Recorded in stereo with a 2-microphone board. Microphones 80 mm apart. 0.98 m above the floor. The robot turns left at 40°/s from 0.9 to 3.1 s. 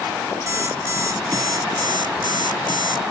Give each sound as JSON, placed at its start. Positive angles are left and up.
{"t": 0.5, "sound": "an alarm clock", "azimuth_deg": -35}